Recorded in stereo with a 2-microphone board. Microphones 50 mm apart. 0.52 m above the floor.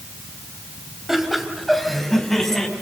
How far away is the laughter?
About 3.5 m.